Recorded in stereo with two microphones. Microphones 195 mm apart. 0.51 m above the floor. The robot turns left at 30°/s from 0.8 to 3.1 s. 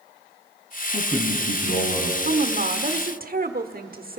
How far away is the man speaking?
About 3.5 m.